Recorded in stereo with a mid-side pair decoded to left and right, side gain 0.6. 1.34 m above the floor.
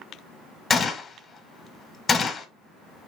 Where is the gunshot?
25° left, 1.0 m.